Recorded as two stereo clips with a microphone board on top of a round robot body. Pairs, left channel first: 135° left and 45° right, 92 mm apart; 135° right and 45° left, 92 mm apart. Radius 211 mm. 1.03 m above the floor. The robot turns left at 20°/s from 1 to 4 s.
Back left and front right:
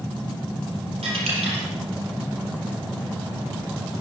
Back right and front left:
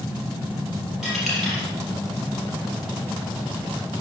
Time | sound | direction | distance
1.0 | a dropped coin | 40° right | 5 m